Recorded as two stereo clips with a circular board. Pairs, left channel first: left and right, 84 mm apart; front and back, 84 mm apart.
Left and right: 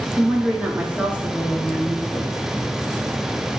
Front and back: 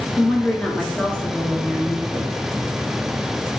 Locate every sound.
0.2 s a woman speaking: 50° right, 1.1 m